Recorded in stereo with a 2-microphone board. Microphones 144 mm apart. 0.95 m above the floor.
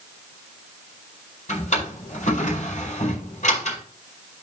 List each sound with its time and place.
1.5 s a drawer: 55° left (ahead or behind), 4.5 m